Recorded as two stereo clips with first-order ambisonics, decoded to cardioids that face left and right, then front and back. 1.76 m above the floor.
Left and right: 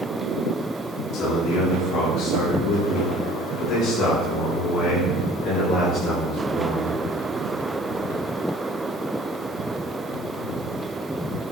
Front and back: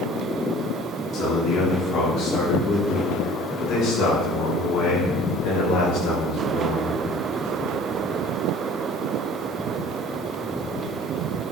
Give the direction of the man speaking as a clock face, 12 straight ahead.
10 o'clock.